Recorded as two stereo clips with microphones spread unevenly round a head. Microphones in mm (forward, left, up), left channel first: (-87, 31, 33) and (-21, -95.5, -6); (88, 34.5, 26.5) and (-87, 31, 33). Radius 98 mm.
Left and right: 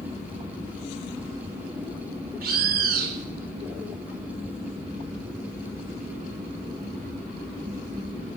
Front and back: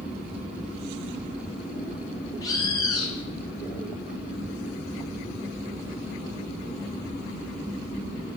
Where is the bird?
70° right, 1.3 m.